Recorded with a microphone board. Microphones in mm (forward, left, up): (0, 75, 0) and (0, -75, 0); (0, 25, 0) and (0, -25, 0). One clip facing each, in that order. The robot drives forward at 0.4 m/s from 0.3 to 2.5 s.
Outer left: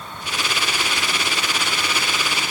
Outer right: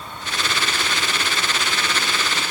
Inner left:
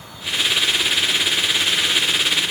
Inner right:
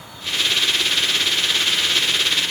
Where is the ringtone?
No ringtone in this recording.